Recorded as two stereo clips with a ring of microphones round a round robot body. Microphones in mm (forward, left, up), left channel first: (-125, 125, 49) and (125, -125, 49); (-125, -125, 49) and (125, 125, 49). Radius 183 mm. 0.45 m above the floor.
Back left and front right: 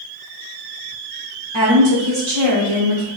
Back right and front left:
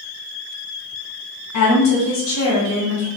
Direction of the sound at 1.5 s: 115° right.